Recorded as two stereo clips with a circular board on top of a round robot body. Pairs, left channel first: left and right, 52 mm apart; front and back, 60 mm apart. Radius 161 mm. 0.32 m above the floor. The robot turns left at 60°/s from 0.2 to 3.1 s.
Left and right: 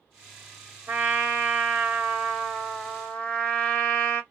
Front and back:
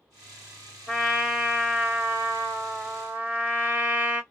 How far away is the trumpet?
About 1.4 m.